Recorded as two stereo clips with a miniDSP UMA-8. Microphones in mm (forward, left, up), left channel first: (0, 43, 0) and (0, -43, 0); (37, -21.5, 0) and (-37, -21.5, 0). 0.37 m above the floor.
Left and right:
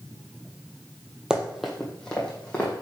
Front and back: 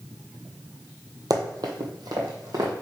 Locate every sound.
1.3 s running footsteps: 170° right, 0.7 m; by 2.7 s 165° left, 1.5 m